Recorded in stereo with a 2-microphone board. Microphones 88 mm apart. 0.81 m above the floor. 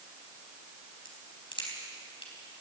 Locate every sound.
1.1 s a crack: 70° left (ahead or behind), 4.5 m